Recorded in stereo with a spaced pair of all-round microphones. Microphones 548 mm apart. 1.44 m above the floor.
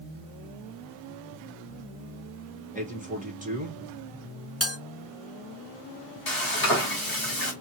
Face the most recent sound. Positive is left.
turn(degrees=40)  # may be behind; listen again after turning